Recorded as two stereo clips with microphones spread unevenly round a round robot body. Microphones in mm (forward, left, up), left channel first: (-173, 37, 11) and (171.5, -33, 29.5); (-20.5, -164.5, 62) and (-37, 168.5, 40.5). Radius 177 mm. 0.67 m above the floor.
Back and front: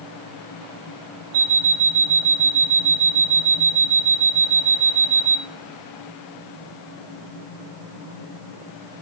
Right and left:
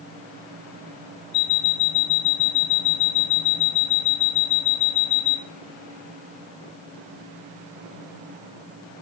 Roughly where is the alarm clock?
Ahead right.